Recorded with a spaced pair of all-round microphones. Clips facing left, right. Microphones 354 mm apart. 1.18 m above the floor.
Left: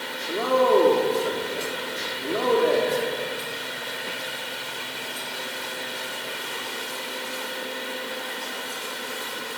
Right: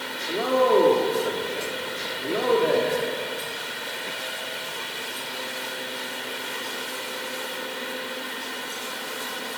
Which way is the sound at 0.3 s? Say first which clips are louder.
Even; centre (ahead or behind).